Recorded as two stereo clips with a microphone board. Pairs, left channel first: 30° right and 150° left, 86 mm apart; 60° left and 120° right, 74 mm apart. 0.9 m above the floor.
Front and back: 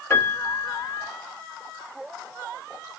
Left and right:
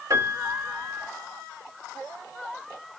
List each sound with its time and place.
0.1 s a piano: 80° right, 1.5 m